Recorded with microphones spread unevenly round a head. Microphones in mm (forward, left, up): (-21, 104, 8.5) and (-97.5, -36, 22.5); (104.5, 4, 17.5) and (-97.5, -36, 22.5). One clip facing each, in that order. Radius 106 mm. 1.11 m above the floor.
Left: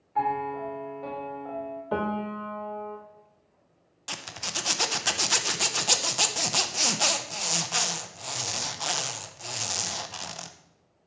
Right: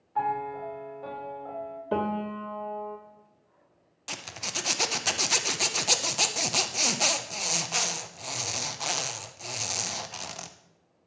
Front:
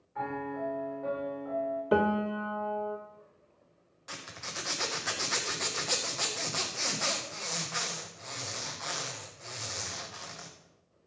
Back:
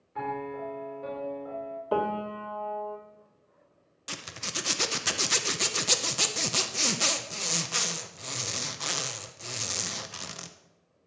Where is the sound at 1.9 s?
55° right, 1.1 m.